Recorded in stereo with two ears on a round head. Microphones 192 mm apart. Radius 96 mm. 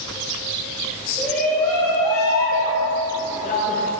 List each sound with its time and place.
1.2 s a shout: 5° left (ahead or behind), 2 m; by 3.9 s 40° left (ahead or behind), 1.4 m